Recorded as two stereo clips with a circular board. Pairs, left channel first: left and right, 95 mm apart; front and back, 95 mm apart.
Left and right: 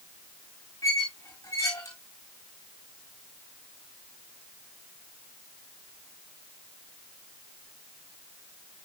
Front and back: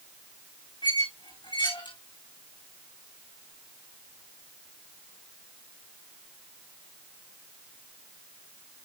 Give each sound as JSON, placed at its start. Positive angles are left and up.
{"t": 0.8, "sound": "a squeak", "azimuth_deg": 35, "distance_m": 5.5}